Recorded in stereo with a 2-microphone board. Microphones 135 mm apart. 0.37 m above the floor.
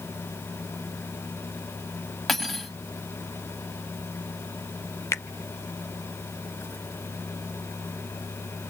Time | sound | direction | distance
2.3 | cutlery clinking | centre (ahead or behind) | 1.4 m
5.1 | a finger snap | 20° left (ahead or behind) | 0.6 m